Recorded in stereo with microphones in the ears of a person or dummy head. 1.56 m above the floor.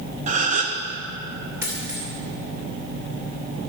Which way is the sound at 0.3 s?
40° right (ahead or behind).